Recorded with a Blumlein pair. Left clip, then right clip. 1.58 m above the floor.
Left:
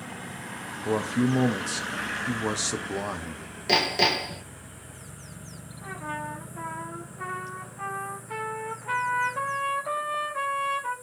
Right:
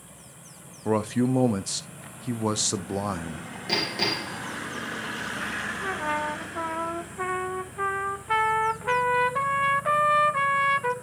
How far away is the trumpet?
About 1.0 m.